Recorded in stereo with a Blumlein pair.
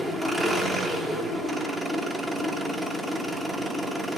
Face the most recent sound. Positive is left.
turn(degrees=-5)